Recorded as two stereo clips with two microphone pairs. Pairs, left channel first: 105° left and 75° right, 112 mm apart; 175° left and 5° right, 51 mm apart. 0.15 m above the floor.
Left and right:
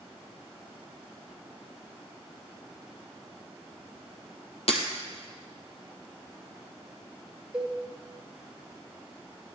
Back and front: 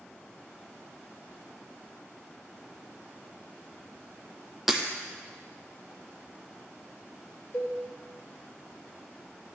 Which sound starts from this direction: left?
Breaking glass, at 4.7 s.